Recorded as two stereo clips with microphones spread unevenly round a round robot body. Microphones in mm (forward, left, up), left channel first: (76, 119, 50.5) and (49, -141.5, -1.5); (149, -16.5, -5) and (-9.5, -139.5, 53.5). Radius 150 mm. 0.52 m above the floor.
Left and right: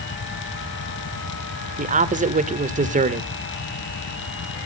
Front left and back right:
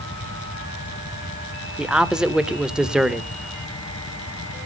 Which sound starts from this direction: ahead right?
A man speaking, at 1.8 s.